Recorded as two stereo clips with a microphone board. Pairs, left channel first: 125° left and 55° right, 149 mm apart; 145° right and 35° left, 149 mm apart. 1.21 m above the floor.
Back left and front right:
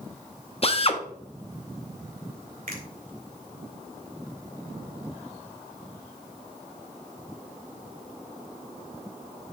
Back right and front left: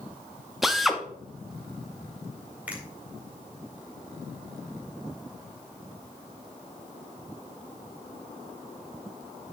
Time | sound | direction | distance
0.6 | a drill | 120° left | 0.7 m
2.7 | a finger snap | 45° right | 2 m